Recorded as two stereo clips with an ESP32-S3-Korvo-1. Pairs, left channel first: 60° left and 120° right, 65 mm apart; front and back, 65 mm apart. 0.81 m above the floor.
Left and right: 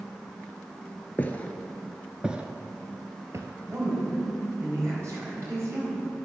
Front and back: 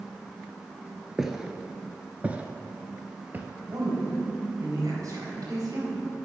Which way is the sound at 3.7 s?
160° right.